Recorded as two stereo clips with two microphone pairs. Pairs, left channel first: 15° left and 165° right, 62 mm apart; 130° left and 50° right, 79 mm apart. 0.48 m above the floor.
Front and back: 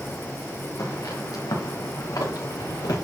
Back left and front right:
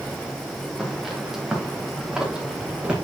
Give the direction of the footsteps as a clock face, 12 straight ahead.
11 o'clock.